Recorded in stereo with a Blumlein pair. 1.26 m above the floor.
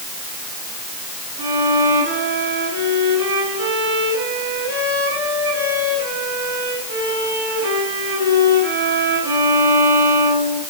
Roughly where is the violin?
Ahead right.